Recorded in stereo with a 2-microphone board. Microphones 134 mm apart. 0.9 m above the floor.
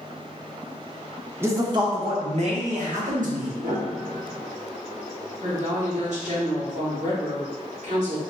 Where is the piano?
75° right (ahead or behind), 0.9 m.